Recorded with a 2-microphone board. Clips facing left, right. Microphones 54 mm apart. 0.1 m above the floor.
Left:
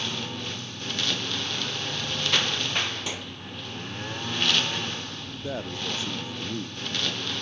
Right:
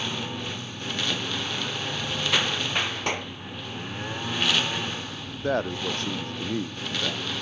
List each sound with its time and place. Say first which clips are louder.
0.0 s a lawn mower: right 1 dB; 10° right (ahead or behind); by 7.4 s 5° right (ahead or behind)
3.1 s a clap: right 6 dB; 50° right (ahead or behind)
5.4 s a man speaking: right 7 dB; 50° right (ahead or behind)